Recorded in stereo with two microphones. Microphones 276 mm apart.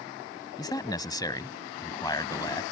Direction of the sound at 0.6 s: 15° left (ahead or behind).